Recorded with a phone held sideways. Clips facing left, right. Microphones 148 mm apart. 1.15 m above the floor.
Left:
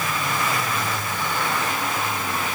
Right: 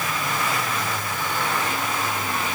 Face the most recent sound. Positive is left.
No sound to turn to.